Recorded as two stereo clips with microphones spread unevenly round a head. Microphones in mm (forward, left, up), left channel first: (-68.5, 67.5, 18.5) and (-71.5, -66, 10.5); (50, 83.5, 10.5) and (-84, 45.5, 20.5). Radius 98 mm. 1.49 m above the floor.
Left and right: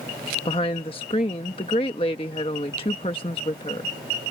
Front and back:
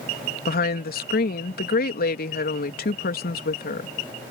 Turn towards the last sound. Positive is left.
turn(degrees=25)